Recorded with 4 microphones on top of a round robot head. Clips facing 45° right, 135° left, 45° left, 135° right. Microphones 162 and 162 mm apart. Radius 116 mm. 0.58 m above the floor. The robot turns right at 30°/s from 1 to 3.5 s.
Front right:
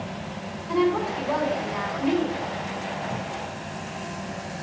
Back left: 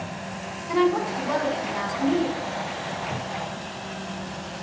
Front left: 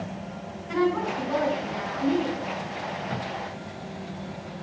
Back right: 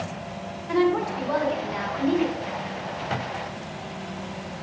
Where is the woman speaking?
135° right, 3.5 m; by 2.5 s 85° right, 3.5 m.